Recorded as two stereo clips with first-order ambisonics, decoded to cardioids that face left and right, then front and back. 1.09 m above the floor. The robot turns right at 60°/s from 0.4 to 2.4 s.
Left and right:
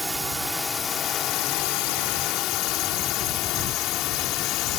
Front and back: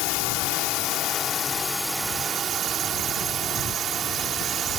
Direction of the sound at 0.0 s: Straight ahead.